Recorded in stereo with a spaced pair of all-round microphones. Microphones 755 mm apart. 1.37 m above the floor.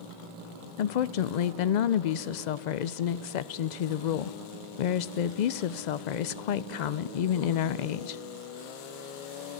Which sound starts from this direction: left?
A woman speaking, at 0.8 s.